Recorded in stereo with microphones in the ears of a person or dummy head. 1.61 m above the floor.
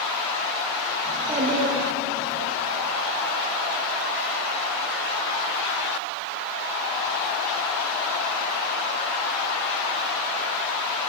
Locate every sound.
1.1 s a child speaking: 15° right (ahead or behind), 1.7 m; by 2.5 s 65° right (ahead or behind), 1.7 m